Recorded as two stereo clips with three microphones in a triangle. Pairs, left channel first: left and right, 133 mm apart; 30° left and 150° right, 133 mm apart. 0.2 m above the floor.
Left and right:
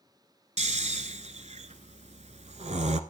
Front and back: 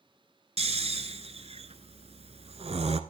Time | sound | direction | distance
0.6 | snoring | 115° right | 0.9 m